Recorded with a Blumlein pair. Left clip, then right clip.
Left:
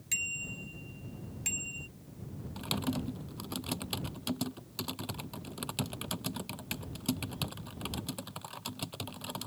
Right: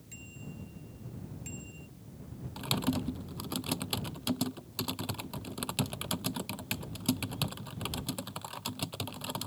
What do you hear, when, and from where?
0.1 s a bicycle bell: 40° left; by 1.9 s 30° left
2.6 s typing on a keyboard: 10° right